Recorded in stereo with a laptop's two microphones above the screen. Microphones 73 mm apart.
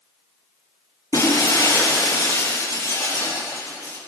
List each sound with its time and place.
1.1 s breaking glass: 50° left (ahead or behind), 5.5 m